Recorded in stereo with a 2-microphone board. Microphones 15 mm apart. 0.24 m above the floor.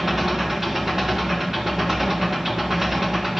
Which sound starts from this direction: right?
An engine running, at 0.0 s.